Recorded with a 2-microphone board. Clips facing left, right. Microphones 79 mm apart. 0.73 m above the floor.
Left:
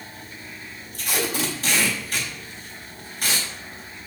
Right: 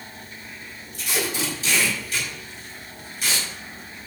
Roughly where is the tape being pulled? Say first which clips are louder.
Left 1 dB; left.